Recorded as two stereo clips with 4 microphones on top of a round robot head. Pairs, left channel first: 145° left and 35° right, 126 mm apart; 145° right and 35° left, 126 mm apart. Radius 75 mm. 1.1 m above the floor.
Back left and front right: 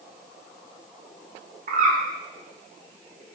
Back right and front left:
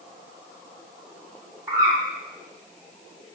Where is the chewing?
No chewing in this recording.